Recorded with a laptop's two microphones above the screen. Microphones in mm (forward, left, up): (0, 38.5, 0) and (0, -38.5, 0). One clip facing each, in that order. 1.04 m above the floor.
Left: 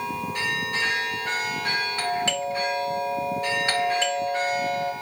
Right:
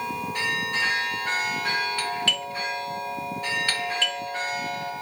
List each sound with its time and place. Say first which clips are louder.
2.0 s a doorbell: left 3 dB; 25° left (ahead or behind), 1.5 m